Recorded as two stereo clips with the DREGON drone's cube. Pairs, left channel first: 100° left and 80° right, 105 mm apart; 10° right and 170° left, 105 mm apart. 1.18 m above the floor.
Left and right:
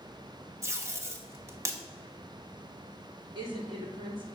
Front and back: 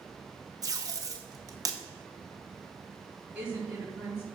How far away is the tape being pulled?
About 1.3 m.